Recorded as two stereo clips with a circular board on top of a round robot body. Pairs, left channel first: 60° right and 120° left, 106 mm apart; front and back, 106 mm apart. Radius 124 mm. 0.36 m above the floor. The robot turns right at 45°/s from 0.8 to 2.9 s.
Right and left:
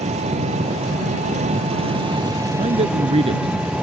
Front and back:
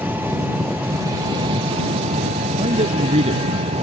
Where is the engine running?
105° left; by 3.8 s 160° right.